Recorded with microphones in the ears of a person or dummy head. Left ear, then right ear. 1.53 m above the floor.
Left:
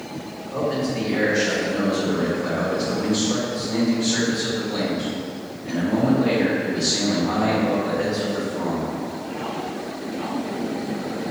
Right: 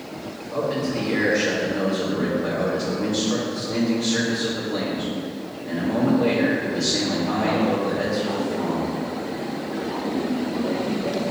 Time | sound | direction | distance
0.5 | a man speaking | centre (ahead or behind) | 1.8 m